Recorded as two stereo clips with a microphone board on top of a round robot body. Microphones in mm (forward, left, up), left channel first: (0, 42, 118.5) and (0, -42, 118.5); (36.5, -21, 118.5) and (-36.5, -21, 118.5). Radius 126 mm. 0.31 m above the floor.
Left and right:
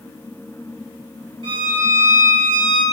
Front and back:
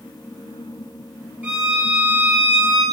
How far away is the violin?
About 3.5 m.